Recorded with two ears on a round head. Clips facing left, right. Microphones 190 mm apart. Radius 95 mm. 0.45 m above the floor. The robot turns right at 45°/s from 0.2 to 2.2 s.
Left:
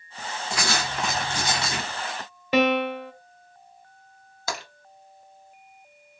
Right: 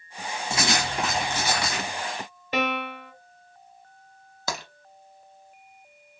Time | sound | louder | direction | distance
0.5 | writing | right 2 dB | 25° right | 0.8 m
2.5 | a piano | left 7 dB | 65° left (ahead or behind) | 0.6 m
4.5 | tapping | even | 80° right | 0.8 m